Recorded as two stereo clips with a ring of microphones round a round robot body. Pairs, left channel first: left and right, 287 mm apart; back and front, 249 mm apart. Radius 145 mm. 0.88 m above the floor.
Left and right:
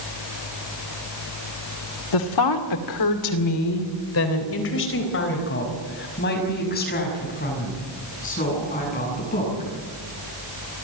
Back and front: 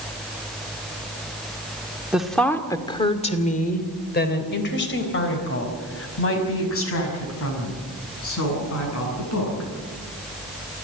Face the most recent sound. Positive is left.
turn(degrees=155)